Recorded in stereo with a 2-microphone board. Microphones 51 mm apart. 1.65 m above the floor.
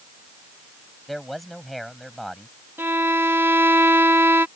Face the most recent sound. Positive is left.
turn(degrees=-50)  # may be behind; listen again after turning